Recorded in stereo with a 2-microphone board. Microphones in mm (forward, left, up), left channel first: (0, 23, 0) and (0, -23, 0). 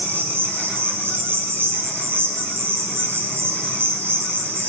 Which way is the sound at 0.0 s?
60° right (ahead or behind).